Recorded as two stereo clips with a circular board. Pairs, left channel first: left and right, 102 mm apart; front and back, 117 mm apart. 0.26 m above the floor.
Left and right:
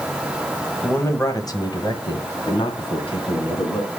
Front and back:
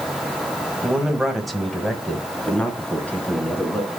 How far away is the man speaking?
About 1.2 m.